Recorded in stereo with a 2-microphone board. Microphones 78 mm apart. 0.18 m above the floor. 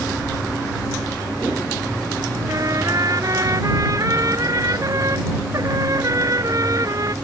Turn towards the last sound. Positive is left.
turn(degrees=-50)  # may be behind; listen again after turning